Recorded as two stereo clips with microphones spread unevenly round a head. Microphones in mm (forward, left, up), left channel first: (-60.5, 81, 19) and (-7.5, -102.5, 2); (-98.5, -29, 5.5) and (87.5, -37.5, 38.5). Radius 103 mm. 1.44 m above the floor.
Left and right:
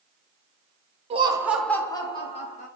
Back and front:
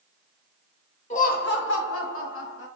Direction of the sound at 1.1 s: 130° right.